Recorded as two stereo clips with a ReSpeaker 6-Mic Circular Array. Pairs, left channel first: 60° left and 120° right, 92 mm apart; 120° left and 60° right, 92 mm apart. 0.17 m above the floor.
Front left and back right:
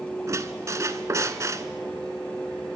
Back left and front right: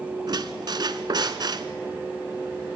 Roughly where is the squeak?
Right.